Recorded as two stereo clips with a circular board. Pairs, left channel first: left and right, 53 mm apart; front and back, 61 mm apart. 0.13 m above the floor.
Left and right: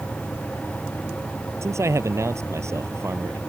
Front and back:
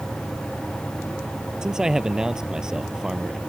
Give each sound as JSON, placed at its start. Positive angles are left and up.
{"t": 1.6, "sound": "a man speaking", "azimuth_deg": -105}